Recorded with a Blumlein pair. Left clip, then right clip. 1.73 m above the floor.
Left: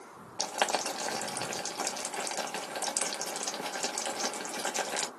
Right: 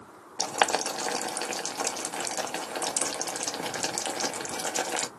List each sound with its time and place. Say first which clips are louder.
0.4 s boiling: right 4 dB; 15° right, 0.9 m